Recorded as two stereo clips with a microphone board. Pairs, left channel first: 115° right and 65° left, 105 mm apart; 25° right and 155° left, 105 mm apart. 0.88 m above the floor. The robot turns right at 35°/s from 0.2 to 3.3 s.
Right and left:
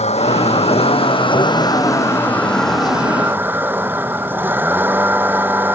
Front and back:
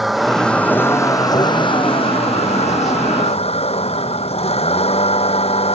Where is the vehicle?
115° right; by 5.8 s 5° right.